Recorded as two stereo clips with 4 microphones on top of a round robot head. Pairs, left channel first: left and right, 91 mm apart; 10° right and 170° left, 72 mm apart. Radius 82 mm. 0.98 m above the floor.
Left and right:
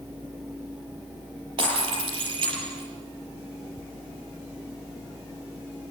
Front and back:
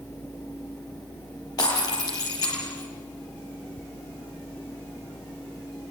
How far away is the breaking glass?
About 7.5 m.